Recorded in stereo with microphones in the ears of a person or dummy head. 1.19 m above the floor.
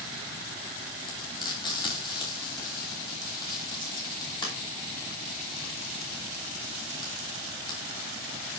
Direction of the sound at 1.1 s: 25° left (ahead or behind).